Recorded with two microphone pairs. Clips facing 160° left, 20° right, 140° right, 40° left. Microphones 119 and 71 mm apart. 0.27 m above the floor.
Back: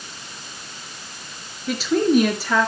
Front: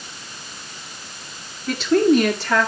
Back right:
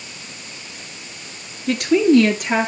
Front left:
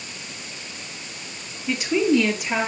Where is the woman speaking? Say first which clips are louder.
Front 3 dB, back right 6 dB; 115° right, 3.5 m; by 2.7 s 120° right, 4.5 m.